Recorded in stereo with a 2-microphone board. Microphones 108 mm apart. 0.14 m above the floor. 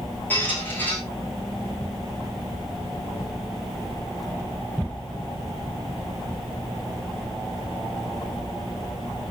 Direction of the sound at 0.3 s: 15° left (ahead or behind).